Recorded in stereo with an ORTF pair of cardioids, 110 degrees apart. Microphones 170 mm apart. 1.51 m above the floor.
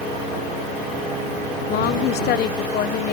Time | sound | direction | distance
1.7 | a woman speaking | 70° left | ?